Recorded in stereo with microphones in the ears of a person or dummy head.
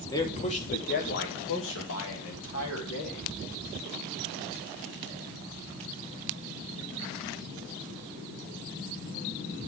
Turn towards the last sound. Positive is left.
turn(degrees=80)